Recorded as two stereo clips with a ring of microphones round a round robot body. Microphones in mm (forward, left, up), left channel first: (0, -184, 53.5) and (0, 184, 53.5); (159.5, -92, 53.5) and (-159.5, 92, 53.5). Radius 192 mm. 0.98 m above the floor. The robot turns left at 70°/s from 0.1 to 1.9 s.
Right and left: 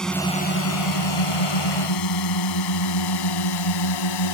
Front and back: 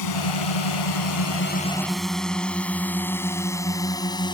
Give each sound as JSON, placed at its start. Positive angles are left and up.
{"t": 0.0, "sound": "a drone", "azimuth_deg": 0}